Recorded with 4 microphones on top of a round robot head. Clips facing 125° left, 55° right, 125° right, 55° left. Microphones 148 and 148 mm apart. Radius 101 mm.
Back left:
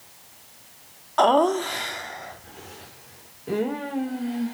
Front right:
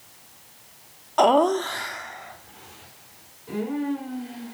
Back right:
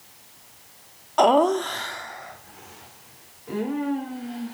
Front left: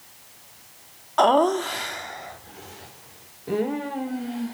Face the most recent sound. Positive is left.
turn(degrees=100)